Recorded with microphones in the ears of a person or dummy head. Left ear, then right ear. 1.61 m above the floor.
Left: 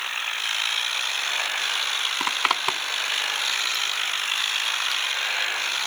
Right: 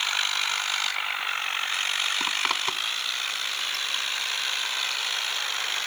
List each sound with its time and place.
2.2 s a zipper: 15° left (ahead or behind)